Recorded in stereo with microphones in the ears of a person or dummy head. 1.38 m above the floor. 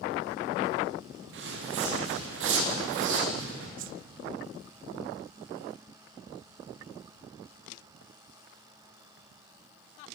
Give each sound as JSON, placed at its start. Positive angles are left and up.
{"t": 1.3, "sound": "footsteps", "side_deg": -75, "distance_m": 5.5}
{"t": 3.8, "sound": "a whoosh", "side_deg": -45, "distance_m": 0.6}